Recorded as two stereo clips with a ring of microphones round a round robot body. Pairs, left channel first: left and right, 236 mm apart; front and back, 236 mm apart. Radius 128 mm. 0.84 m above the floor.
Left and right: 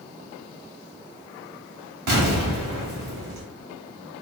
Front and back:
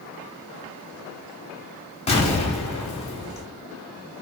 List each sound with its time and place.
2.1 s an explosion: 65° right, 1.1 m